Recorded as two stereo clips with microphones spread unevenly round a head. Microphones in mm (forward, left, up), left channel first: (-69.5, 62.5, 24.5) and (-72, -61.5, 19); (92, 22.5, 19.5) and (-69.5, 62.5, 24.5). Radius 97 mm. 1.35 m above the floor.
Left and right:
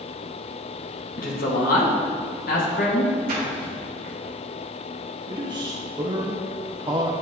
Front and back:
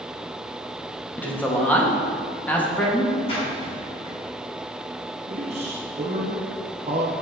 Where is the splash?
75° right, 3 m.